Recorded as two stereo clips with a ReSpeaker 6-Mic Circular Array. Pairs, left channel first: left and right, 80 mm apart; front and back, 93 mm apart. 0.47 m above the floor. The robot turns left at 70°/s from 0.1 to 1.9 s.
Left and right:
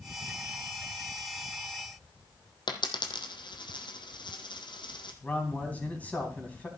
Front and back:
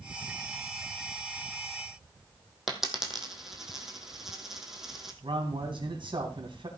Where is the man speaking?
160° left, 3 m.